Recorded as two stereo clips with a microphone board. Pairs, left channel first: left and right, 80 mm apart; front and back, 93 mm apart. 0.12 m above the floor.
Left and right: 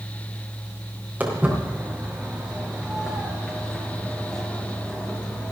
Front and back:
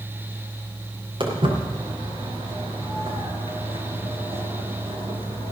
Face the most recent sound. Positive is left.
turn(degrees=165)